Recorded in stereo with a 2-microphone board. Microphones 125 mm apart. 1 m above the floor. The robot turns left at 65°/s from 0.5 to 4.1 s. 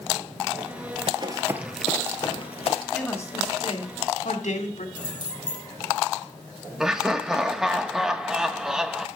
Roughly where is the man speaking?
Behind.